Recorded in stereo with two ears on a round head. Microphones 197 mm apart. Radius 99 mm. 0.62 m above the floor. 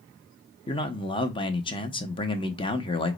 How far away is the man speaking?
About 0.6 m.